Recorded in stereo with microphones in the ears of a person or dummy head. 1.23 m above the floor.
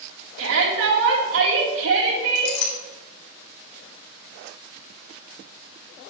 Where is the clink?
60° left (ahead or behind), 2 m.